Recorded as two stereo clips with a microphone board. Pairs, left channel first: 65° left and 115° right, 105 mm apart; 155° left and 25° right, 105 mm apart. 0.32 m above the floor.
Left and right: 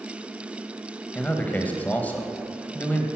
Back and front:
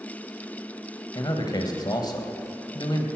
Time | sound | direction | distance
1.1 | a man speaking | 135° left | 1.5 m